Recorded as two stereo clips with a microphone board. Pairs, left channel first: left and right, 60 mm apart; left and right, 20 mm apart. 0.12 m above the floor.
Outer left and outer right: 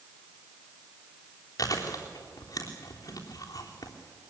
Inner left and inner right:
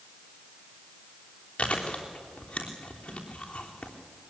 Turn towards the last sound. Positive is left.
turn(degrees=80)